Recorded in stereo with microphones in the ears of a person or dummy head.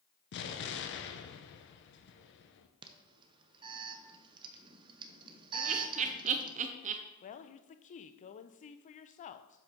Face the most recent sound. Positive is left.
turn(degrees=30)  # may be behind; listen again after turning